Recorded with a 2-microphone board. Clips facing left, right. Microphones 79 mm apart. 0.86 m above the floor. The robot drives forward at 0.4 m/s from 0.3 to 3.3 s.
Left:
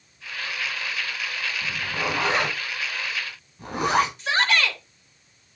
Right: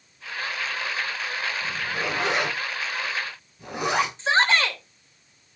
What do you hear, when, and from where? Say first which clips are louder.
1.6 s a zipper: even; 40° left (ahead or behind), 6.5 m
4.2 s a shout: right 2 dB; 25° right (ahead or behind), 3 m